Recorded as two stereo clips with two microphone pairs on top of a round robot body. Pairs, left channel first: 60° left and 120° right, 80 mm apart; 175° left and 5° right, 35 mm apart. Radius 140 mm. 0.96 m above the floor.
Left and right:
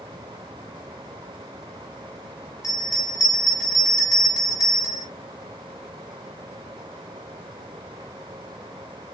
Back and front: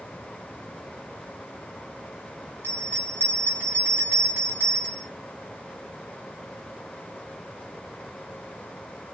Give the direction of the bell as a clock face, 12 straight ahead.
11 o'clock.